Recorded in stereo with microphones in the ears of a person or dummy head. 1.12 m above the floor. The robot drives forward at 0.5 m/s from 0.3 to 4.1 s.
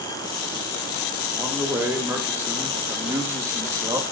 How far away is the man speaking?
About 3 m.